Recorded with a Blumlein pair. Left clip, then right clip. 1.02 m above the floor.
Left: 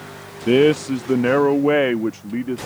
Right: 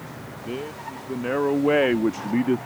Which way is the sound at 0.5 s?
55° left.